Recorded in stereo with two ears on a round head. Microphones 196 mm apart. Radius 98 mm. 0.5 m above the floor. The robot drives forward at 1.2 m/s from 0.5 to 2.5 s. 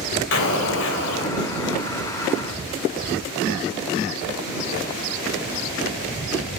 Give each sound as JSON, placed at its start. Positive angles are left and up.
{"t": 0.3, "sound": "an explosion", "side_deg": 60, "distance_m": 2.5}